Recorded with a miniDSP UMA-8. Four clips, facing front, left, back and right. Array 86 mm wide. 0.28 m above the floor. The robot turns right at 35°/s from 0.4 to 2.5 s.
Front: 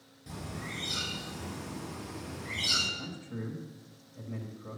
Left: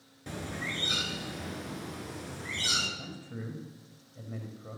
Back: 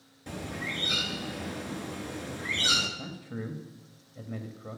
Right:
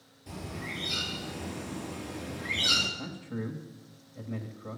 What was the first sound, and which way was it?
A bird, 120° left.